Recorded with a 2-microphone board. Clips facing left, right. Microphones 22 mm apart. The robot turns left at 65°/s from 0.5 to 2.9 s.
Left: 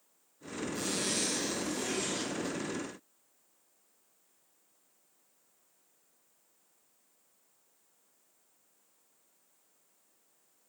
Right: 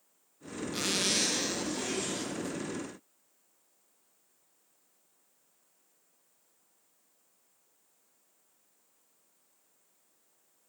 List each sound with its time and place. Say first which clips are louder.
0.7 s a zipper: right 5 dB; 100° right, 1.7 m; by 2.6 s 140° left, 1.7 m